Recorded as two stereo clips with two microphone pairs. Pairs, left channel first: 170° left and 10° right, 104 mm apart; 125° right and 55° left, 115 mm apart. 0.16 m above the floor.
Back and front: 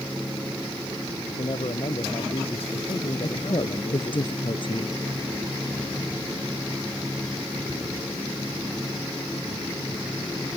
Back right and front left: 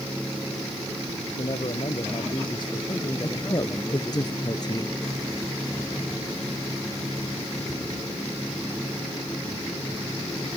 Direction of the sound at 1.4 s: 160° right.